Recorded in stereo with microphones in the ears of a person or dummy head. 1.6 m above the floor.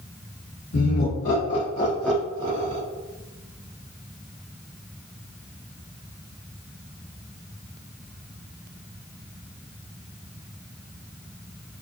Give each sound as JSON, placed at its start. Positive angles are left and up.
{"t": 0.7, "sound": "laughter", "side_deg": 65, "distance_m": 1.0}